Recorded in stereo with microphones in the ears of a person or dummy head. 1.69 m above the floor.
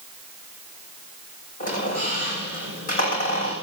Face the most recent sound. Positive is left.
turn(degrees=40)  # may be behind; listen again after turning